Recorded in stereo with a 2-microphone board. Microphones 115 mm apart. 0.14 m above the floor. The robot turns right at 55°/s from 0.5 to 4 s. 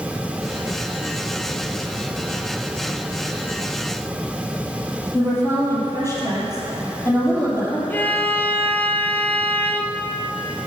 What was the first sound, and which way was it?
A woman speaking, 20° left (ahead or behind).